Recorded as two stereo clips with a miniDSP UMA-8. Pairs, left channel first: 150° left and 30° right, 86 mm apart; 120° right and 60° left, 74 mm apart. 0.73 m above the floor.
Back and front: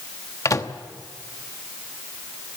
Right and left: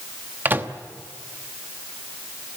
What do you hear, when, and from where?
0.5 s a microwave: 115° left, 1.0 m